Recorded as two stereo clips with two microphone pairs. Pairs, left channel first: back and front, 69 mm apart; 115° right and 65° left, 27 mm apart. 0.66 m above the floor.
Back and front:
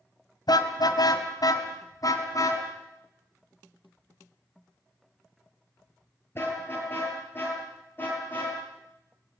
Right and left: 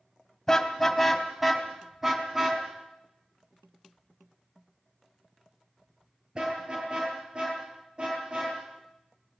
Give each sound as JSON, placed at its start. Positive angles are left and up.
{"t": 0.5, "sound": "a car horn", "azimuth_deg": 175, "distance_m": 2.5}